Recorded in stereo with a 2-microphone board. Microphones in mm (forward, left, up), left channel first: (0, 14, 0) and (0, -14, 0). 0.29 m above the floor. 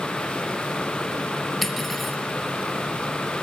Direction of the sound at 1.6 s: Centre (ahead or behind).